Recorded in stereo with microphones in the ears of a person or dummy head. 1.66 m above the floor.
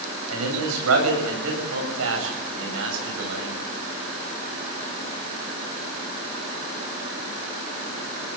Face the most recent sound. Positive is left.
turn(degrees=-70)  # may be behind; listen again after turning